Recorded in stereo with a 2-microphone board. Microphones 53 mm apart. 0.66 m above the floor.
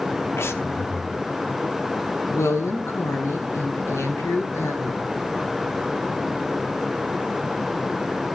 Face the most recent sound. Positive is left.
turn(degrees=65)  # may be behind; listen again after turning